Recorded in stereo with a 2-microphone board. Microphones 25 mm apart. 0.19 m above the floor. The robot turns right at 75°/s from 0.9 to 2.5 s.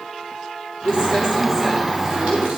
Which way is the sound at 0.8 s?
50° left (ahead or behind).